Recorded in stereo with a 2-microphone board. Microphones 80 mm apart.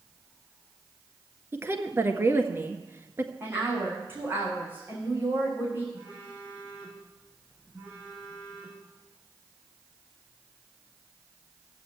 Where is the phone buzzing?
15° right (ahead or behind), 6.5 m.